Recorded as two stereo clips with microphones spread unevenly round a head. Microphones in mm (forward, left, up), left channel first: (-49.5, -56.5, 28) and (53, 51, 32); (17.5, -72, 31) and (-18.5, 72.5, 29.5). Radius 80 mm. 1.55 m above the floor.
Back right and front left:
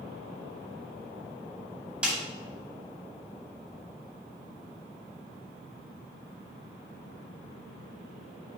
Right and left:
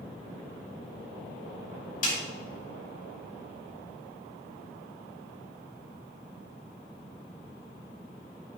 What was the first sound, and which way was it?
A snare drum, 35° right.